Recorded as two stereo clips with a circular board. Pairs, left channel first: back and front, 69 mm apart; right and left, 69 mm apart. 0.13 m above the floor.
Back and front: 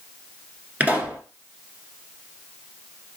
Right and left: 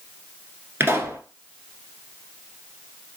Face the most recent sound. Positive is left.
turn(degrees=50)